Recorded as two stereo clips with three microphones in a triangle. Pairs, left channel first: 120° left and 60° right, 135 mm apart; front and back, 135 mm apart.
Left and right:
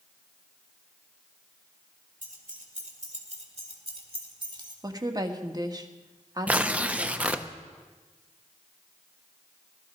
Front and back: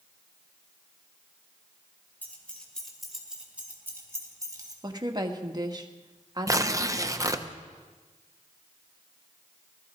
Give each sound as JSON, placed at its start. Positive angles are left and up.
{"t": 2.2, "sound": "keys jangling", "azimuth_deg": -75, "distance_m": 3.0}
{"t": 4.8, "sound": "a woman speaking", "azimuth_deg": -120, "distance_m": 1.5}
{"t": 6.5, "sound": "tearing paper", "azimuth_deg": -135, "distance_m": 0.7}